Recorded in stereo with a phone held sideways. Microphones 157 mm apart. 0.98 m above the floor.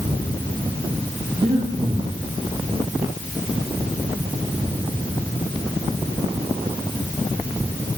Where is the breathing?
45° right (ahead or behind), 7.5 m.